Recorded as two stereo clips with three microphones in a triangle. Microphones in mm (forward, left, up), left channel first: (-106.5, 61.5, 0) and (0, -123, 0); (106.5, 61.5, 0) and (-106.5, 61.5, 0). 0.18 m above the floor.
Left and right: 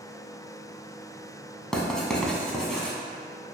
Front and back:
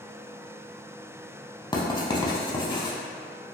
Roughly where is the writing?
Ahead left.